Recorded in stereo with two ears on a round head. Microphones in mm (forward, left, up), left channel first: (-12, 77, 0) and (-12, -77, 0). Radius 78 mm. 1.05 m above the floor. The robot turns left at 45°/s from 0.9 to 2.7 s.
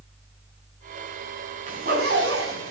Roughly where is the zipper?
Right.